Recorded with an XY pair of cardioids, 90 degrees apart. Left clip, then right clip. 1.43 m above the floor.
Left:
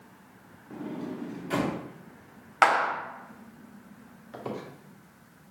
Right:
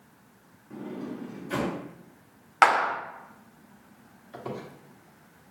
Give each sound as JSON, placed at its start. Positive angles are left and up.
{"t": 0.7, "sound": "a sliding door", "azimuth_deg": 40, "distance_m": 1.5}
{"t": 2.6, "sound": "a clap", "azimuth_deg": -15, "distance_m": 0.7}
{"t": 4.3, "sound": "a squeak", "azimuth_deg": 15, "distance_m": 1.1}